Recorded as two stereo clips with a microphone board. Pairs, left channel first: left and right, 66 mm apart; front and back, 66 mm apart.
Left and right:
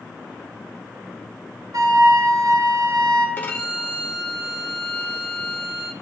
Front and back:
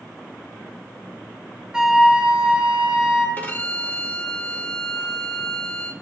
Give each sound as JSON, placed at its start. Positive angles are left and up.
{"t": 1.7, "sound": "a flute", "azimuth_deg": -100, "distance_m": 1.2}
{"t": 3.4, "sound": "a violin", "azimuth_deg": 45, "distance_m": 1.1}